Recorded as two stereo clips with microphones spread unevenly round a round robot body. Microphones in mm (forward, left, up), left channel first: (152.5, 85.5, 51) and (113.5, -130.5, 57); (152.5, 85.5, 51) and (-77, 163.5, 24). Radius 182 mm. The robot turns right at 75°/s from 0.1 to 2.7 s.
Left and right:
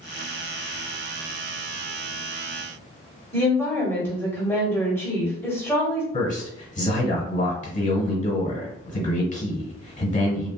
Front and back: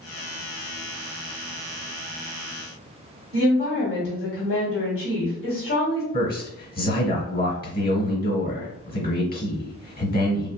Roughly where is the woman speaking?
Ahead.